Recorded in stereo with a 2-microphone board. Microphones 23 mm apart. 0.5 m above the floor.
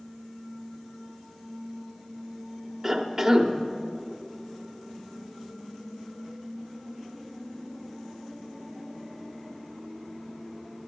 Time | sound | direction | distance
2.8 | a cough | 15° right (ahead or behind) | 1.0 m